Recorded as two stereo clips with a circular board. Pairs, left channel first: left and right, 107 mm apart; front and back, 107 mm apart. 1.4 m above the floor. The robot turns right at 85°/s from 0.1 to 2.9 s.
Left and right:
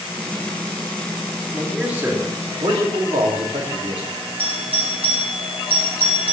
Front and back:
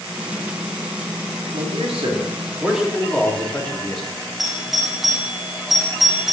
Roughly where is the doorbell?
Right.